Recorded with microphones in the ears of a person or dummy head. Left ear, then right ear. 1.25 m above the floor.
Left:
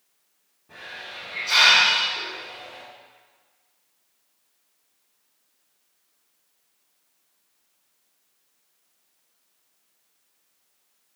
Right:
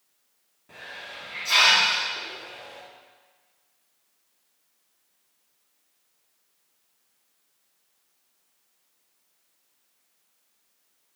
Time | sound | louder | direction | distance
0.7 | a hiss | left 2 dB | 60° right (ahead or behind) | 1.6 m